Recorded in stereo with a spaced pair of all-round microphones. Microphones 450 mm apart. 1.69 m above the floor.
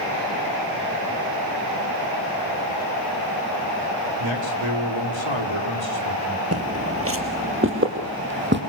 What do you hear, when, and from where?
4.2 s a man speaking: 80° right, 4.5 m
6.5 s footsteps: 30° right (ahead or behind), 2.5 m; by 8.6 s 25° right (ahead or behind), 4 m